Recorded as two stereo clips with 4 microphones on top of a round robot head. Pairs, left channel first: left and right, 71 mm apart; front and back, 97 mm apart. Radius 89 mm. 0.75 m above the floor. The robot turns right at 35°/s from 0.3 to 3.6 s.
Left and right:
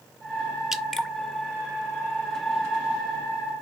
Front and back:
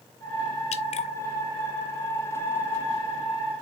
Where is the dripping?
5° right, 0.6 m; by 1.1 s 10° left, 0.6 m.